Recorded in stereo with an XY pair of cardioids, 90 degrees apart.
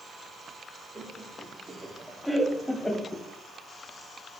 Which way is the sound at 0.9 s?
20° right.